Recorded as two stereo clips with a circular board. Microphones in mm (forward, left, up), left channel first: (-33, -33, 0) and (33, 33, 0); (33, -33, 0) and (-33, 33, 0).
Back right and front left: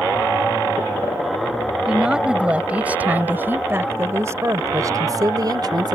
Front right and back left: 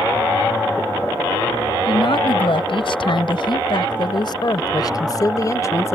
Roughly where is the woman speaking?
Ahead right.